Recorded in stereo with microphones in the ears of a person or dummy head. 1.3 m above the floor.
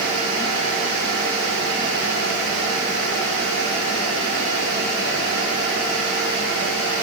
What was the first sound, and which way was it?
Only background noise.